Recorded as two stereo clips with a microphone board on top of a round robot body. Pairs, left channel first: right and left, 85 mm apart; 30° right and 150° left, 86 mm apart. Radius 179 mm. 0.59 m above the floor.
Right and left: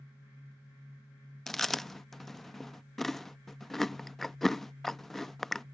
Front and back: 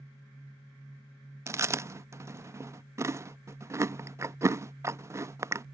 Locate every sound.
1.5 s chewing: 175° right